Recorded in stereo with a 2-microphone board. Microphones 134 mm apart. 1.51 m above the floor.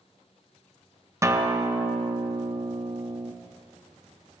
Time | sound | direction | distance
1.2 | a guitar | 20° right (ahead or behind) | 0.5 m